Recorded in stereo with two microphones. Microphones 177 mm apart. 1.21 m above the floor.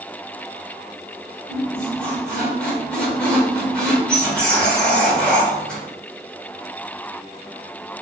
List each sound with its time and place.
1.5 s a squeak: 5° left (ahead or behind), 1.3 m